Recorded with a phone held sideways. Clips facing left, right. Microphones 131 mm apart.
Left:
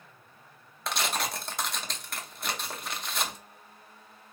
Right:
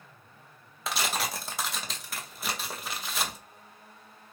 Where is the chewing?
No chewing in this recording.